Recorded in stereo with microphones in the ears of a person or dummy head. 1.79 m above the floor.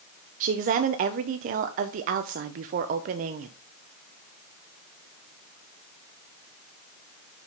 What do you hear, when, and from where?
0.4 s a woman speaking: 45° right (ahead or behind), 0.5 m